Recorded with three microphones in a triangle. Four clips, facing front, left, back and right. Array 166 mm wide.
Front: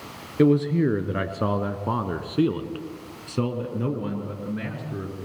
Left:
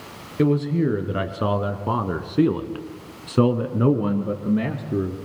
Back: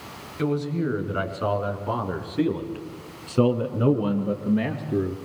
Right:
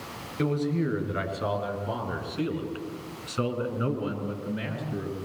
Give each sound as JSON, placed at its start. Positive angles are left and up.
{"t": 0.4, "sound": "a man speaking", "azimuth_deg": 30, "distance_m": 3.5}